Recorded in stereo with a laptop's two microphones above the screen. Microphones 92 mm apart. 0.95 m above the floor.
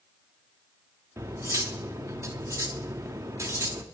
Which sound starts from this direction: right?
Cutlery clinking, at 1.2 s.